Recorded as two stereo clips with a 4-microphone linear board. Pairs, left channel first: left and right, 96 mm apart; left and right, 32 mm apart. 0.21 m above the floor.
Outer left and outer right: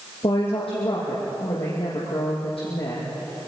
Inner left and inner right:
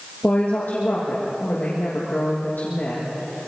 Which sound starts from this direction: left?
A woman speaking, at 0.2 s.